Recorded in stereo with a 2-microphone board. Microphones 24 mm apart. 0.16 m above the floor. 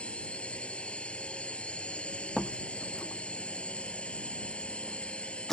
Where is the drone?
60° left (ahead or behind).